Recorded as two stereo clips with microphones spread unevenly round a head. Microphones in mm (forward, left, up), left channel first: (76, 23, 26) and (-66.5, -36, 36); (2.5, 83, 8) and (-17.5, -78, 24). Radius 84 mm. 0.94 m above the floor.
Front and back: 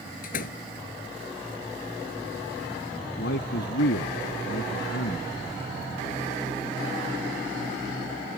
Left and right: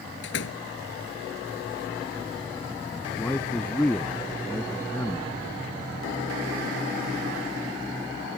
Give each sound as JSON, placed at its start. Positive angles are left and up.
{"t": 0.2, "sound": "a door slam", "azimuth_deg": 60}
{"t": 3.2, "sound": "a man speaking", "azimuth_deg": 0}